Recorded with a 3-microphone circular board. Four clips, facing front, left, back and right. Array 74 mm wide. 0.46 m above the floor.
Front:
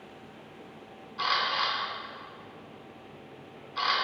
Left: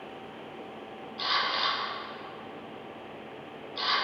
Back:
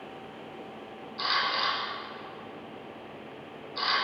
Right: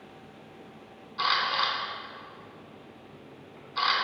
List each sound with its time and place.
1.2 s a camera shutter: 75° right, 3 m